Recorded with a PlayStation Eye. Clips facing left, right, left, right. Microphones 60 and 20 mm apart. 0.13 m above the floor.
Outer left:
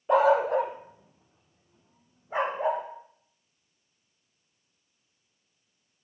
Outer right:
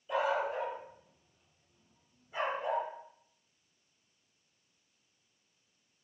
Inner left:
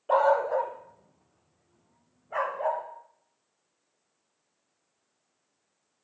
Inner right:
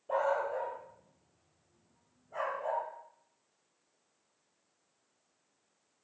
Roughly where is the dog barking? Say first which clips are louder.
Outer left 11 dB, inner left 9 dB; left.